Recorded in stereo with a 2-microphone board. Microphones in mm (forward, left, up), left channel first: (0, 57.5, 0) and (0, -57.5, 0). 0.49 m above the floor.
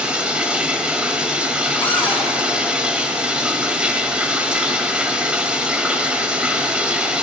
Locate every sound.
0.0 s running water: 10° right (ahead or behind), 1.1 m
1.8 s a cupboard door: 15° left (ahead or behind), 3.5 m